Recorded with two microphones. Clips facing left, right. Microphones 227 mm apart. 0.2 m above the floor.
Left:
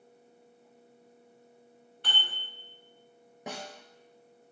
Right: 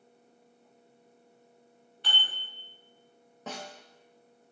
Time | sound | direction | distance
2.0 | dishes clattering | 55° left (ahead or behind) | 1.3 m
3.5 | a snare drum | 15° left (ahead or behind) | 0.7 m